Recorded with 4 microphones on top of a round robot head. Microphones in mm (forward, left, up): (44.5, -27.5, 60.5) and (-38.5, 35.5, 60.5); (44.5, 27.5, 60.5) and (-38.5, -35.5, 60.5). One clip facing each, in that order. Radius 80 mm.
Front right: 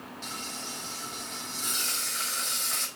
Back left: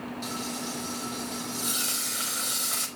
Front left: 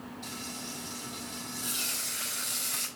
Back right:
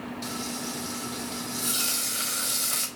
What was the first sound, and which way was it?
Frying, 140° right.